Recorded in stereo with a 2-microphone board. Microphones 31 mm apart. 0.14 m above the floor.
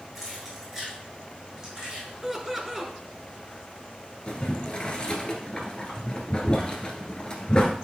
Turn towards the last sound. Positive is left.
turn(degrees=30)  # may be behind; listen again after turning